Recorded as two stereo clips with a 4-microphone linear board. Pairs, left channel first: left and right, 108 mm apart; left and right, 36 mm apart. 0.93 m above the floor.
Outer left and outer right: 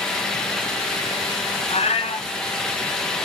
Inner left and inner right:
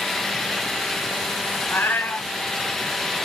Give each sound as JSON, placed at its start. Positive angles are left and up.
{"t": 1.7, "sound": "a cat meowing", "side_deg": 75, "distance_m": 2.0}